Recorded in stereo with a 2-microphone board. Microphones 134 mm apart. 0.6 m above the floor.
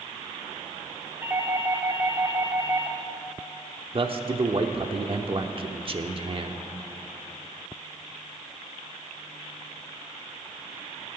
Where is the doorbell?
20° right (ahead or behind), 1.7 m.